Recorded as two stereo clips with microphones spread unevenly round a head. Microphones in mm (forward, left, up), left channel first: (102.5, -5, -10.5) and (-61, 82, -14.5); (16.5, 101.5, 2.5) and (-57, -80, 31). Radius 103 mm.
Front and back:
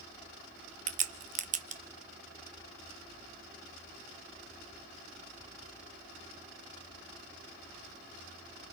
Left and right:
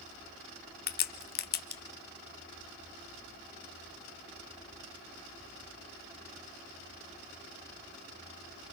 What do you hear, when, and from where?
0.9 s a crack: 105° left, 0.9 m